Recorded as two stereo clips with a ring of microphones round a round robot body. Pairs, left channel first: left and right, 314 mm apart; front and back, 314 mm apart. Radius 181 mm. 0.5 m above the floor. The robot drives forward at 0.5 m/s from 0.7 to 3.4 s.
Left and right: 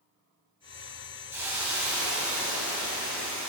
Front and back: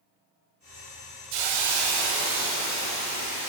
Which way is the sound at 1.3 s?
175° right.